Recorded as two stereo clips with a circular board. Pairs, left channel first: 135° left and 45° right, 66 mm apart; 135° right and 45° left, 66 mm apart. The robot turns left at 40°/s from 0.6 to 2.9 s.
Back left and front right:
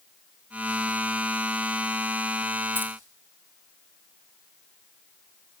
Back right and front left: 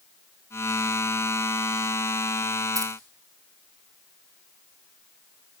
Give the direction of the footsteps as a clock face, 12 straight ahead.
No footsteps in this recording.